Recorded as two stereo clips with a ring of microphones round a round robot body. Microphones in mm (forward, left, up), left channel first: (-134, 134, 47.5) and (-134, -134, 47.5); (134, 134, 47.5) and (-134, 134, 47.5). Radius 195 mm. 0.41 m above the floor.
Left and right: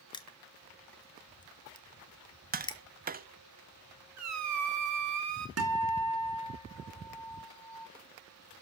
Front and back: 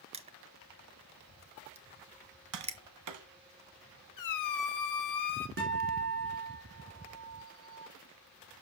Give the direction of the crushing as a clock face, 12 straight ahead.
7 o'clock.